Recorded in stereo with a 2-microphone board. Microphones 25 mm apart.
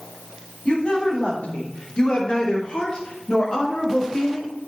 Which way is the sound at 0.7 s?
50° left (ahead or behind).